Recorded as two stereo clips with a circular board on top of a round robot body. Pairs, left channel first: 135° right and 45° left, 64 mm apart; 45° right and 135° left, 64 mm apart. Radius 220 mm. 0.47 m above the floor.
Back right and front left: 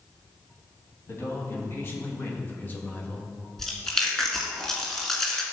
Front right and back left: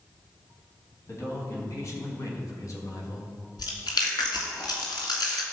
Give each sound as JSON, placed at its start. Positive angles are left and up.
{"t": 1.1, "sound": "a man speaking", "azimuth_deg": -90, "distance_m": 4.0}
{"t": 3.6, "sound": "chewing", "azimuth_deg": -55, "distance_m": 2.0}